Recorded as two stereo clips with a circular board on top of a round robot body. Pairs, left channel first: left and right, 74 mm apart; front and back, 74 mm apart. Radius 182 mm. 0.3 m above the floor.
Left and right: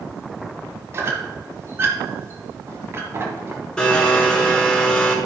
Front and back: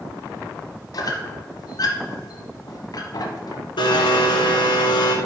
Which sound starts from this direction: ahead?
A blender, at 3.8 s.